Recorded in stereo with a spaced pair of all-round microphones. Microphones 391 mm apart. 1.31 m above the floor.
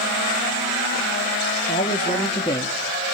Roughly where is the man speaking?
Left.